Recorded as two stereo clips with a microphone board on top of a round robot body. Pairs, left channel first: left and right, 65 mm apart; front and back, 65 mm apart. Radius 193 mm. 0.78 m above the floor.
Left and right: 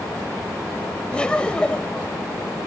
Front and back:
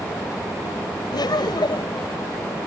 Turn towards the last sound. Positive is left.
turn(degrees=15)